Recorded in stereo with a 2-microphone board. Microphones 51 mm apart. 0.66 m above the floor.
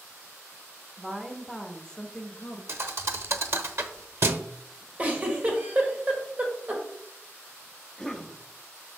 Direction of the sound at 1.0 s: 20° right (ahead or behind).